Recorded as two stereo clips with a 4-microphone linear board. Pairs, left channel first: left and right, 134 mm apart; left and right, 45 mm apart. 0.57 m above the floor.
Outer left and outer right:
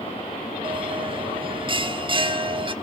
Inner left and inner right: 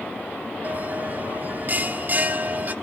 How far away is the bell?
About 1.1 m.